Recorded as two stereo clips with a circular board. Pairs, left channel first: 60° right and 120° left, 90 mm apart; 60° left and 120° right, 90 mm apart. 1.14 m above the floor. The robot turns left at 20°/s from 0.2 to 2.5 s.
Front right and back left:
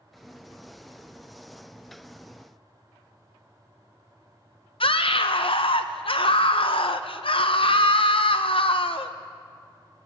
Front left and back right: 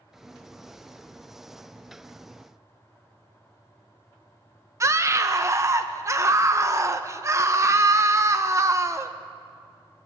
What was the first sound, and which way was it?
A scream, 65° right.